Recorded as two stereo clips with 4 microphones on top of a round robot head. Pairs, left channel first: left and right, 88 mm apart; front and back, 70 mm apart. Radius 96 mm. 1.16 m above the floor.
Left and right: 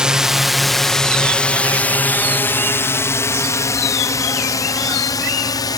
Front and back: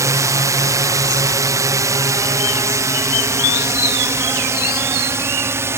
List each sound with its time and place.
0.0 s a drone: 170° right; by 5.8 s 130° left